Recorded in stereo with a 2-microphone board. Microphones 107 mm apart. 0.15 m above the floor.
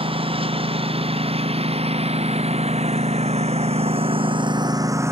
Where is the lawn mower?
60° right (ahead or behind); by 5.1 s 25° right (ahead or behind).